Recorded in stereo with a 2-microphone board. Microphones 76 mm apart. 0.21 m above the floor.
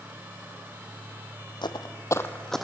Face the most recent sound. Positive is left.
turn(degrees=0)  # may be behind; listen again after turning